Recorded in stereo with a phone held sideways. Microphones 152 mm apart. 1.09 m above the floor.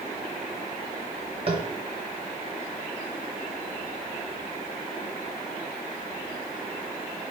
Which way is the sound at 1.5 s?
40° right (ahead or behind).